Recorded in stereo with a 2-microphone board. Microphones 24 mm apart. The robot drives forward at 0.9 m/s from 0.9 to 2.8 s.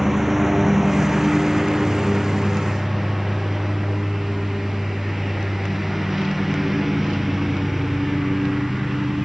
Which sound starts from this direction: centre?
A lawn mower, at 0.0 s.